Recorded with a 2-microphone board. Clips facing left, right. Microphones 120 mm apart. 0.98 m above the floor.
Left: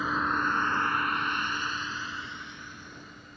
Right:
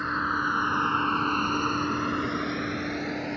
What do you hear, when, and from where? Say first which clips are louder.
0.0 s a vehicle: even; 5° left (ahead or behind); by 3.4 s 80° right